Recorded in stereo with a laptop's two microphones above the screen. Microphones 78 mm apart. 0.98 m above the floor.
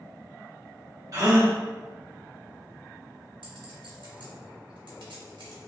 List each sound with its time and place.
1.1 s a gasp: 40° right (ahead or behind), 0.9 m
3.4 s a clink: 85° right, 1.1 m